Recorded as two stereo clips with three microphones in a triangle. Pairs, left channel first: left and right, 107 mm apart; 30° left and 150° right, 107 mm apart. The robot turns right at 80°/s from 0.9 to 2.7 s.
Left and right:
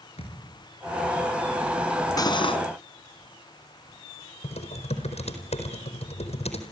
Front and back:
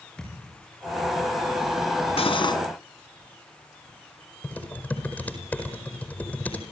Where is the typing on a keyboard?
105° left, 4.5 m.